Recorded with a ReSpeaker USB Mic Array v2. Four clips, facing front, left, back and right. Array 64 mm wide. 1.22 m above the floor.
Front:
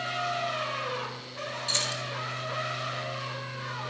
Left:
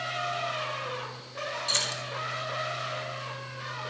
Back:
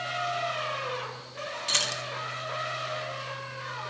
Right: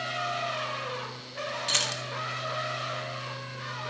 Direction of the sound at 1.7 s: 130° right.